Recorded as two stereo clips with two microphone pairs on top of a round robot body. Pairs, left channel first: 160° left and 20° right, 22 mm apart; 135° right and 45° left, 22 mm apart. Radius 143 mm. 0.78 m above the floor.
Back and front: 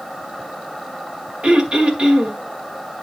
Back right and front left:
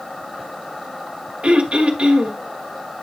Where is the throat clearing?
20° left, 2 m.